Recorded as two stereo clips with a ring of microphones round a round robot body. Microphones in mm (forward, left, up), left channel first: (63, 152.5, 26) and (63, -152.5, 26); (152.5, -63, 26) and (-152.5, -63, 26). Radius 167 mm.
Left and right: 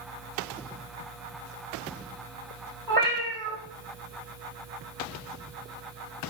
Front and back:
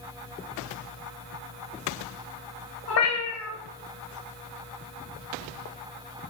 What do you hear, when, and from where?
2.9 s a cat meowing: 35° right, 1.5 m